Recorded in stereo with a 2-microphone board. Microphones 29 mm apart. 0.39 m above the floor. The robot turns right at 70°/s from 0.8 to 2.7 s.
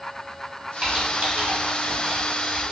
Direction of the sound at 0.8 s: 30° right (ahead or behind).